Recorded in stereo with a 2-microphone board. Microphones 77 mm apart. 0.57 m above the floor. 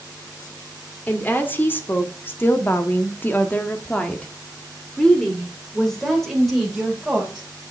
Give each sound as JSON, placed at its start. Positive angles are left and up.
{"t": 1.1, "sound": "a woman speaking", "side_deg": 25, "distance_m": 1.9}